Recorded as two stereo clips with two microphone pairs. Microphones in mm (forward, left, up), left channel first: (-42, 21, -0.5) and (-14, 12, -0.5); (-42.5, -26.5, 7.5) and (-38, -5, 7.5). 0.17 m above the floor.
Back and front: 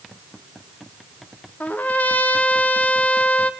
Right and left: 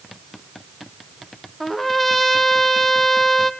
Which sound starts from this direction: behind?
A trumpet, at 1.6 s.